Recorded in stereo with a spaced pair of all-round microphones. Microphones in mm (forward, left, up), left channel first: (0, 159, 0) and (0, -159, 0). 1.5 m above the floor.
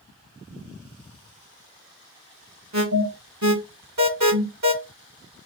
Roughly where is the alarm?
Right.